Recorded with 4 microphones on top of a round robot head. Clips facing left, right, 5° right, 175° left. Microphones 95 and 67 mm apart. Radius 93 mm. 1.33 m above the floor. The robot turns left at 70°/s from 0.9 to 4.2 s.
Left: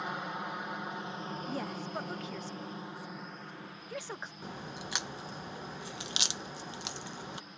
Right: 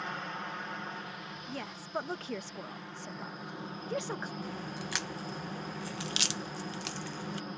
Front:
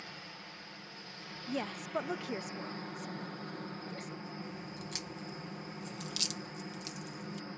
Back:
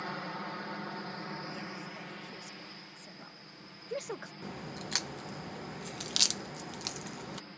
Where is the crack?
160° left.